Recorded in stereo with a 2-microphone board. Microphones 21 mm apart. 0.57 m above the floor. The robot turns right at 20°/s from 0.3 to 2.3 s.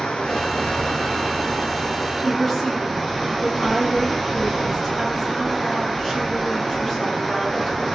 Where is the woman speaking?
25° left (ahead or behind), 5 m.